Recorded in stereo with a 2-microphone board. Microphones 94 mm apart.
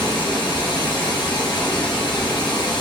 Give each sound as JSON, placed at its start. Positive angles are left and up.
{"t": 0.0, "sound": "running water", "side_deg": 60, "distance_m": 0.9}